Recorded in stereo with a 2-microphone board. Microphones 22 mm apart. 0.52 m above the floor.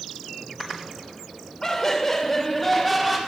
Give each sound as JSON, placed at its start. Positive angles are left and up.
{"t": 1.6, "sound": "laughter", "side_deg": 25, "distance_m": 2.0}